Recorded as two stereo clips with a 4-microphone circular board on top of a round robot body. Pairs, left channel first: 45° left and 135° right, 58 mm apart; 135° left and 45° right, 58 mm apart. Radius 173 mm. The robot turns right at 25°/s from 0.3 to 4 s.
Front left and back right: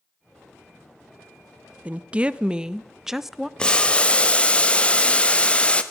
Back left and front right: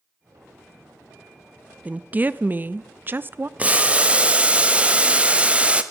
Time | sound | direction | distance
1.9 | a woman speaking | 90° right | 0.7 m
3.6 | boiling | 10° right | 1.3 m